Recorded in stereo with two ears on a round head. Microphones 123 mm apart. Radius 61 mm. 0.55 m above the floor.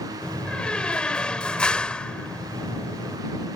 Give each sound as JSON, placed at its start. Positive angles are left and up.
{"t": 0.2, "sound": "a door slam", "side_deg": 5}